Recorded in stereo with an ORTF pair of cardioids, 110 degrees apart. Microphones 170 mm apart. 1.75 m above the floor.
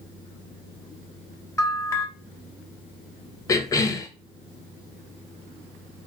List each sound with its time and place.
1.6 s a bell: 20° left, 0.7 m
3.5 s a cough: 20° left, 0.7 m